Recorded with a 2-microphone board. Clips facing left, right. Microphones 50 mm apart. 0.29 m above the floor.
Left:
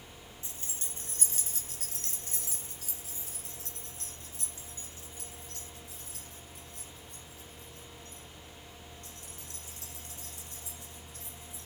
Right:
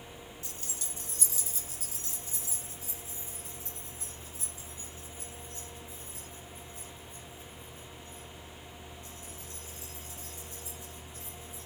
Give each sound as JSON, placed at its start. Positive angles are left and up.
{"t": 0.4, "sound": "keys jangling", "side_deg": 25, "distance_m": 2.5}